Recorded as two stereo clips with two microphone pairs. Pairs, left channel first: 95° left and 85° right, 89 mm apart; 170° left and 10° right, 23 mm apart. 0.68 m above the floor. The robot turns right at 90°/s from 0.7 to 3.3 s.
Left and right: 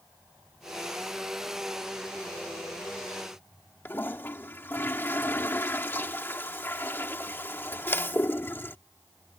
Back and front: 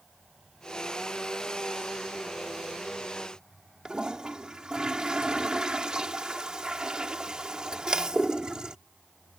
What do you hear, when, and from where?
3.9 s a toilet flushing: 35° left